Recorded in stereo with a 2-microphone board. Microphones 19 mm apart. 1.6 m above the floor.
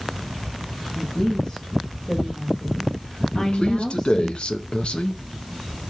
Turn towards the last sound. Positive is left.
turn(degrees=70)  # may be behind; listen again after turning